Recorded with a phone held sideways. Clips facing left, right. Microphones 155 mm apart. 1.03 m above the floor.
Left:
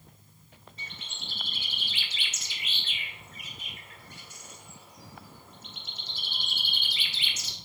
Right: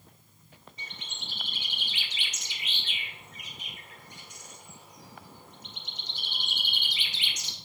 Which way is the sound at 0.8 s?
15° right (ahead or behind).